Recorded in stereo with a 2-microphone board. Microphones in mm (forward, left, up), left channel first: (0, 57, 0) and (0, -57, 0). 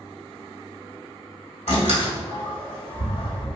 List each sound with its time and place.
1.7 s a door slam: 75° left (ahead or behind), 1.4 m